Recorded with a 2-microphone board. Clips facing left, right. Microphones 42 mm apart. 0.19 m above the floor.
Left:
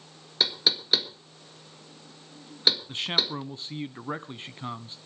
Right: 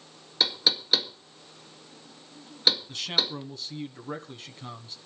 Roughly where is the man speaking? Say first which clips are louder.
Left 1 dB; left.